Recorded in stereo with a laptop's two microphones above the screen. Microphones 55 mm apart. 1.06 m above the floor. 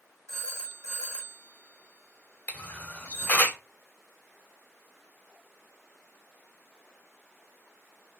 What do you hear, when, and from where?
0.3 s a phone ringing: 70° right (ahead or behind), 1.4 m
2.5 s a camera shutter: 30° left (ahead or behind), 0.9 m